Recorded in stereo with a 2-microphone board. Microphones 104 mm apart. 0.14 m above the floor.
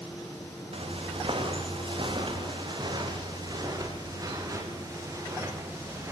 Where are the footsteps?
65° right (ahead or behind), 4.5 m; by 6.1 s 25° right (ahead or behind), 6.5 m.